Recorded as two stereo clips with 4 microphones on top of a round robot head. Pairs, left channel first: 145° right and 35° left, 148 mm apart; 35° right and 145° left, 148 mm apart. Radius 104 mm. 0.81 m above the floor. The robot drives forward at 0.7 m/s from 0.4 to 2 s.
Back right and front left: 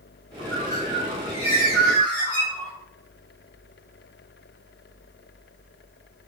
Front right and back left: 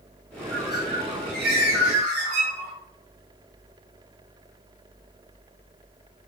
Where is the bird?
60° left, 0.8 m; by 2.7 s 135° left, 1.0 m.